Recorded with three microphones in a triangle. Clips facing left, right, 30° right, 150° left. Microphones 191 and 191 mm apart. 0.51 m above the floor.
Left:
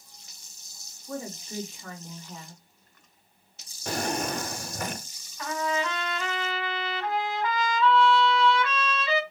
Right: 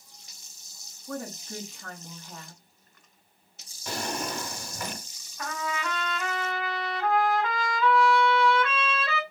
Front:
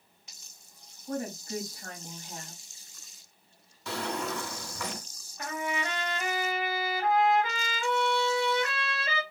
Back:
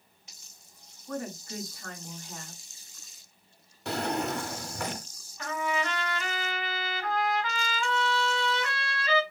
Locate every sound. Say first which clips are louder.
1.1 s a woman speaking: even, front 2 dB; 85° right, 3 m
3.9 s a drawer: left 4 dB, back 3 dB; 125° left, 0.8 m
5.4 s a trumpet: left 4 dB, back 2 dB; 65° right, 3 m